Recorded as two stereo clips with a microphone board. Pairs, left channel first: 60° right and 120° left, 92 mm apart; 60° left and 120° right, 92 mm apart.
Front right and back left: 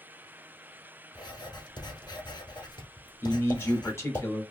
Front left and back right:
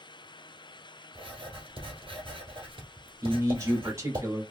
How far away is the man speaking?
About 1.1 m.